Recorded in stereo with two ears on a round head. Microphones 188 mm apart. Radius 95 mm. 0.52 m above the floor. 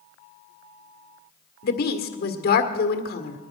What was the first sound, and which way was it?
A woman speaking, 50° left (ahead or behind).